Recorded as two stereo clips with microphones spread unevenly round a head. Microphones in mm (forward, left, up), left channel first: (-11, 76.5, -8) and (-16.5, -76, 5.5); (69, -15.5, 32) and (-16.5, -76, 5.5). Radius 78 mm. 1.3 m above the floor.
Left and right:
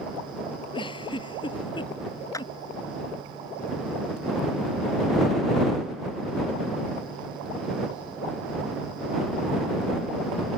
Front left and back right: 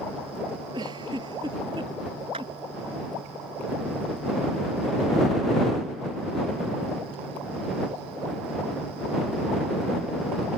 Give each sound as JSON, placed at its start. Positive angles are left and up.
{"t": 0.7, "sound": "a giggle", "azimuth_deg": 150}
{"t": 2.3, "sound": "a clap", "azimuth_deg": 160}